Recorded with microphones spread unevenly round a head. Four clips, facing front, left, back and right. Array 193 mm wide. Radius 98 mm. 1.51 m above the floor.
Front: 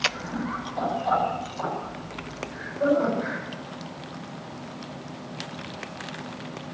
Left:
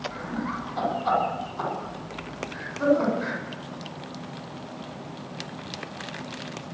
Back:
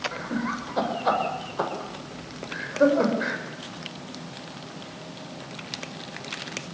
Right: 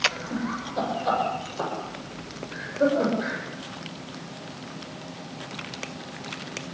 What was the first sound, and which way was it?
Laughter, 175° right.